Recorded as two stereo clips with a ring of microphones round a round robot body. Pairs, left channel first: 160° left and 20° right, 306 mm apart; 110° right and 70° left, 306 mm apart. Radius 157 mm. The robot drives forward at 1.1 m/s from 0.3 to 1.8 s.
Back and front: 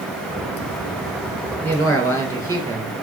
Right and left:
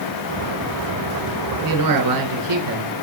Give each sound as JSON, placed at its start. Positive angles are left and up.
{"t": 1.6, "sound": "a man speaking", "azimuth_deg": 75, "distance_m": 2.5}